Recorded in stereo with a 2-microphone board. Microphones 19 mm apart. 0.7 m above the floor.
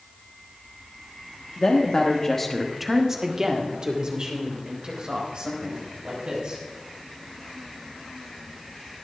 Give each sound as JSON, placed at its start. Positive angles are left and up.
{"t": 1.6, "sound": "a woman speaking", "side_deg": 50, "distance_m": 1.3}